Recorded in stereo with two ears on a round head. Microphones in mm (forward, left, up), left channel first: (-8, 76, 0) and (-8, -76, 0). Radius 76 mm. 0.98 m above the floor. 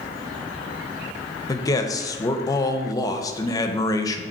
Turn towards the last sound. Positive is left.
turn(degrees=20)  # may be behind; listen again after turning